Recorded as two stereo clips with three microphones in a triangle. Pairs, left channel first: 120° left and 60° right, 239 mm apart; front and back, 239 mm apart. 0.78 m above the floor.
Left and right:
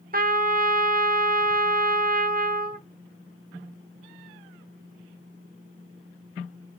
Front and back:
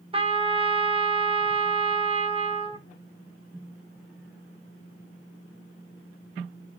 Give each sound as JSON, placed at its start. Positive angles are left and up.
{"t": 0.1, "sound": "a trumpet", "azimuth_deg": -115, "distance_m": 0.5}